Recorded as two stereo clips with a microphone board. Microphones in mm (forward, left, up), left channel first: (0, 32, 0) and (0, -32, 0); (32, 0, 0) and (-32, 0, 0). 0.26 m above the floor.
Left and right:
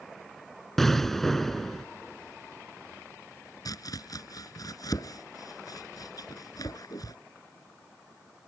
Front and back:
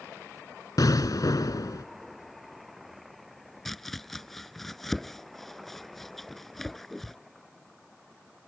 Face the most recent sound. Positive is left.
turn(degrees=85)